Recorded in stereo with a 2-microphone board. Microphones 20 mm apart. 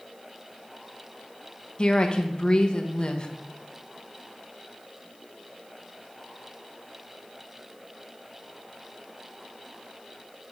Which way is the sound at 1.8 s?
35° left (ahead or behind).